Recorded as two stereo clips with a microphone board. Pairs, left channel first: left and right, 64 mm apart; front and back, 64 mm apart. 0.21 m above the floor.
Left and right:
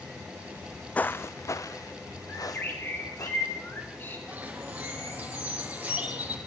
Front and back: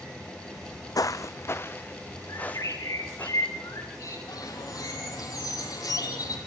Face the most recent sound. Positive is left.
turn(degrees=-20)